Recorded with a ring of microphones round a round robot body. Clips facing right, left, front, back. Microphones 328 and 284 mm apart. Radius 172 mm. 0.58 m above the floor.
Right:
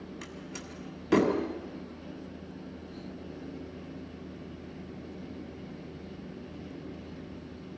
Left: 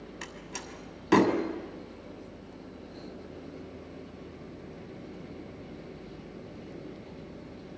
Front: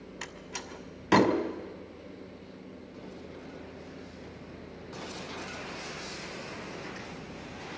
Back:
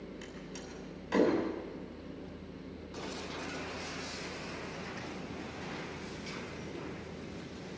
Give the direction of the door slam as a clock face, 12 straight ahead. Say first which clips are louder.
Right 1 dB, even; 12 o'clock.